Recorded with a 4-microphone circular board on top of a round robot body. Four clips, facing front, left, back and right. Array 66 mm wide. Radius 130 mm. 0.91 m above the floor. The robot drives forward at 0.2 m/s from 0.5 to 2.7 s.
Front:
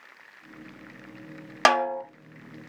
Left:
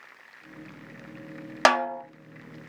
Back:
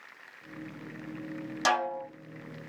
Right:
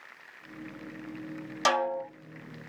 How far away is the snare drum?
About 0.6 m.